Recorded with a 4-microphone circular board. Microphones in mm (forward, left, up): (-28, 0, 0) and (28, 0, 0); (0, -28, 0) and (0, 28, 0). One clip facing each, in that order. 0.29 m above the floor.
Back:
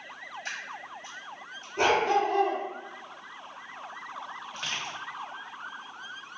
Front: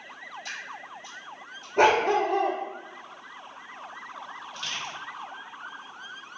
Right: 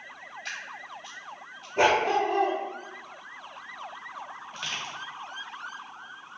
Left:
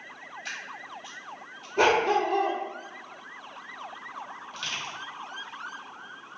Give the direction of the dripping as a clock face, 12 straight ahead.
6 o'clock.